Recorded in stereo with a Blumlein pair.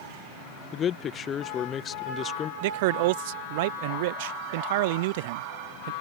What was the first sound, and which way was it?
A man speaking, 25° left.